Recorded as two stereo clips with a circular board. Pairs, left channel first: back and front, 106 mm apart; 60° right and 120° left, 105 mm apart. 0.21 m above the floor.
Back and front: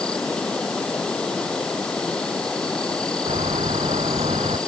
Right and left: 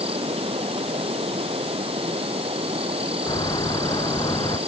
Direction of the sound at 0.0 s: 95° left.